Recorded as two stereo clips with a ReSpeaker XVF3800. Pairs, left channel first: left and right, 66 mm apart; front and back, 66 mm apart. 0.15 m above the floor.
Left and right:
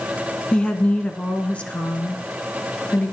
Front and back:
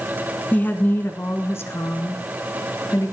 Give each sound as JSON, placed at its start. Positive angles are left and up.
{"t": 0.5, "sound": "a woman speaking", "azimuth_deg": 25, "distance_m": 1.2}